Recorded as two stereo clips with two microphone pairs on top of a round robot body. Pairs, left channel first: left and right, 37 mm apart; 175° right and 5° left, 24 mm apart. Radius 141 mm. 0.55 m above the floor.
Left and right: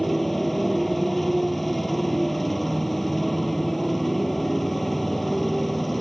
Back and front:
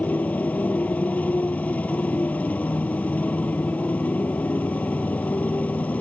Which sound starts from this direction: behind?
A motorcycle, at 0.0 s.